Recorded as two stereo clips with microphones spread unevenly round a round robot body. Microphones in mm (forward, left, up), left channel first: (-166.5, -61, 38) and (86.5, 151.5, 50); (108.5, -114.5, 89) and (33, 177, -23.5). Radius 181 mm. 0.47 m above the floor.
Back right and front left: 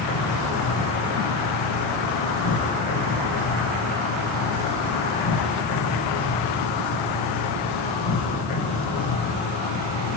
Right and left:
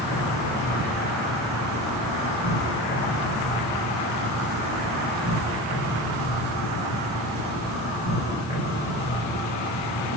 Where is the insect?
150° right, 9 m.